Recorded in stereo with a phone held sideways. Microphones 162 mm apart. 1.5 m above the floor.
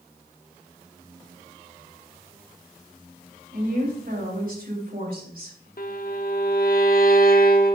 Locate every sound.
3.5 s a woman speaking: 65° right (ahead or behind), 3 m
5.8 s a violin: 65° left (ahead or behind), 0.9 m